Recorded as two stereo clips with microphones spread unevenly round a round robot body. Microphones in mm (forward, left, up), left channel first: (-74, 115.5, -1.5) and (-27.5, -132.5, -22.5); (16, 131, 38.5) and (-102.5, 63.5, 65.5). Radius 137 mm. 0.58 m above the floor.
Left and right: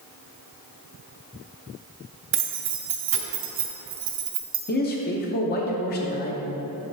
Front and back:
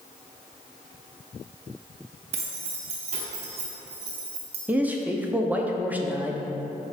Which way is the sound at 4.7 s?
120° left.